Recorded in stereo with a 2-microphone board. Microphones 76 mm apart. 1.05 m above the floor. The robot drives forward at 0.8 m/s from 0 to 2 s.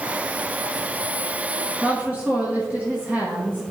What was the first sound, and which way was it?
A woman speaking, 20° right (ahead or behind).